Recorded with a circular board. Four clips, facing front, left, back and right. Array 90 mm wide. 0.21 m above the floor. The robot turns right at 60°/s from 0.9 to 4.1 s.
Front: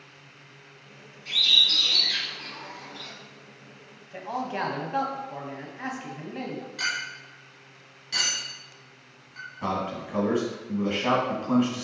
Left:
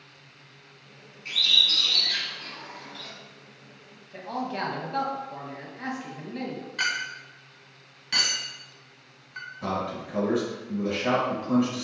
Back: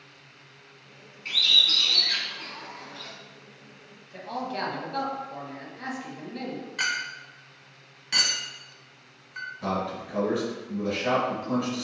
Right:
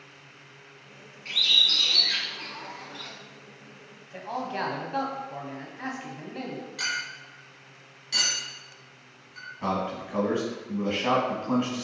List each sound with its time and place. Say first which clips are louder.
1.2 s a bird: even, even; 170° left, 1.7 m; by 3.1 s 80° right, 1.7 m
4.1 s a man speaking: even, front 2 dB; 20° right, 1.0 m
6.8 s a clink: left 7 dB, back 4 dB; 130° left, 1.0 m
9.6 s a man speaking: right 1 dB, front 1 dB; 35° right, 1.4 m